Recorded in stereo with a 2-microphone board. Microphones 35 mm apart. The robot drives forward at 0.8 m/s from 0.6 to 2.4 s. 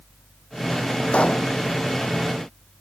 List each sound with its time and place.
1.1 s a pop: 35° left (ahead or behind); by 1.5 s 40° left (ahead or behind)